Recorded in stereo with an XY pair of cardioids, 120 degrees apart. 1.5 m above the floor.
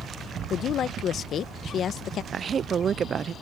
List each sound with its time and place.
0.5 s a woman speaking: 55° left
2.3 s a woman speaking: 40° right